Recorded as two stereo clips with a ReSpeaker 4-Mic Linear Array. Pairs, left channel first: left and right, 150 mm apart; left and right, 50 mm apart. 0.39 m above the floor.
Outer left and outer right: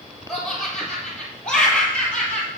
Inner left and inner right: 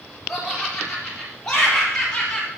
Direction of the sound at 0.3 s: Centre (ahead or behind).